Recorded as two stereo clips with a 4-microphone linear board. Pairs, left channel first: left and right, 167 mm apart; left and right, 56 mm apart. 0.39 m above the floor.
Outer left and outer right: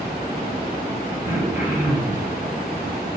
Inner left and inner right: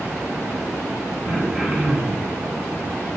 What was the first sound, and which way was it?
Throat clearing, 15° right (ahead or behind).